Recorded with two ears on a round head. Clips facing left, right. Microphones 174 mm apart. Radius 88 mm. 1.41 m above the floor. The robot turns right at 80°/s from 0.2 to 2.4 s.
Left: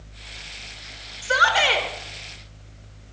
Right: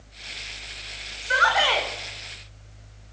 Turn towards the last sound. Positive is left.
turn(degrees=-150)